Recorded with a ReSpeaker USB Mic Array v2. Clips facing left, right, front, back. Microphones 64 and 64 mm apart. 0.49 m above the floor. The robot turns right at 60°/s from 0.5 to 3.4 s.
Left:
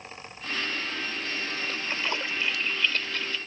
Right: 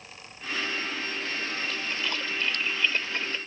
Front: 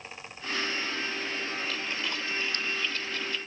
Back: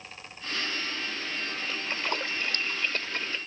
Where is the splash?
125° left; by 3.4 s 135° right.